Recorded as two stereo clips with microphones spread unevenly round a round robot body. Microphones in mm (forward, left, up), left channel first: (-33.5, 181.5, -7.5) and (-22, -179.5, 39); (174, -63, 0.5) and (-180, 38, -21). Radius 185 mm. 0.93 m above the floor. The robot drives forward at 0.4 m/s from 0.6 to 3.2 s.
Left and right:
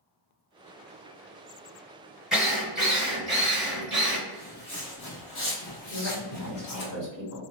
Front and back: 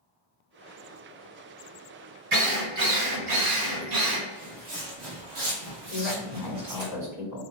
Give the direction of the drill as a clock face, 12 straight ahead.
6 o'clock.